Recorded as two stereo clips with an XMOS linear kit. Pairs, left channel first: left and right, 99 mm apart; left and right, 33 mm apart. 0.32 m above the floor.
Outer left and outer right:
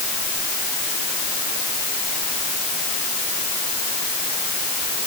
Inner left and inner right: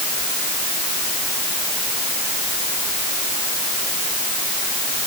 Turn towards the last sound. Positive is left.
No sound to turn to.